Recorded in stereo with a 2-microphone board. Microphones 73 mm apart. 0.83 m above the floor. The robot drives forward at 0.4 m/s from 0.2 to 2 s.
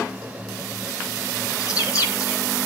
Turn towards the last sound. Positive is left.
turn(degrees=50)  # may be behind; listen again after turning